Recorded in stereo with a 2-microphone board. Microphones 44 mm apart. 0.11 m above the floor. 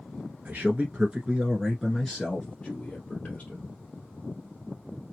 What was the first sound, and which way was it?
A man speaking, 35° right (ahead or behind).